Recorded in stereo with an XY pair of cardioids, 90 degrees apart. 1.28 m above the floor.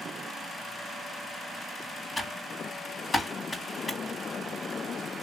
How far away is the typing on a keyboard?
About 1.6 m.